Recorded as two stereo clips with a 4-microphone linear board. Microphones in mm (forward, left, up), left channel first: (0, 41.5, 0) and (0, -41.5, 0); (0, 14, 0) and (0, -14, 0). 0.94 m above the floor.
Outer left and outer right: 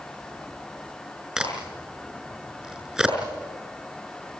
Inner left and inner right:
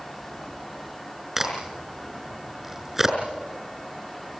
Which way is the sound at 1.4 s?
10° right (ahead or behind).